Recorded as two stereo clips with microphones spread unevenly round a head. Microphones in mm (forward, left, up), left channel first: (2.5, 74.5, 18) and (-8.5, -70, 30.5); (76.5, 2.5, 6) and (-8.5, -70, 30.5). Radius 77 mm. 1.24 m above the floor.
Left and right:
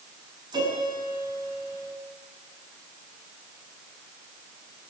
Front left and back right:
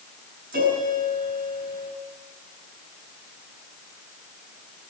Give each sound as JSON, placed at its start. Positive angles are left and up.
{"t": 0.5, "sound": "a piano", "azimuth_deg": -160, "distance_m": 7.5}